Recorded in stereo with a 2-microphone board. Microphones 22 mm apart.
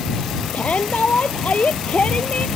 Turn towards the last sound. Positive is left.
turn(degrees=85)